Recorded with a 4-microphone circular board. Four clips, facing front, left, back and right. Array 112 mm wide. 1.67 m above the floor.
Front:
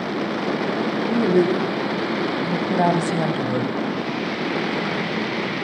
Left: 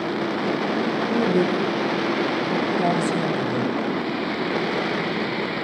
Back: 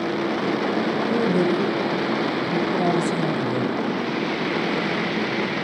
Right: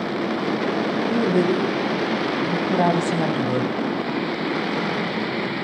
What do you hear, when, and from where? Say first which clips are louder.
1.1 s a woman speaking: right 1 dB, front 4 dB; 25° right, 4.5 m; by 3.7 s 55° right, 1.6 m